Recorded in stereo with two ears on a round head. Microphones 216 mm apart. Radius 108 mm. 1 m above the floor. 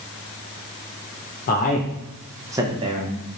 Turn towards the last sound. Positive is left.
turn(degrees=-25)  # may be behind; listen again after turning